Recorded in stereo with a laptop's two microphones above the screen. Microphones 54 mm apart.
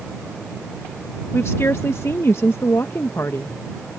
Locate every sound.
1.3 s a woman speaking: 50° left (ahead or behind)